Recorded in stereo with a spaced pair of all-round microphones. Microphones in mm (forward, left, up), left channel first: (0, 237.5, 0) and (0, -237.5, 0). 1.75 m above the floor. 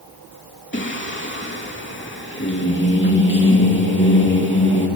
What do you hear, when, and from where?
0.7 s singing: 25° left (ahead or behind), 3 m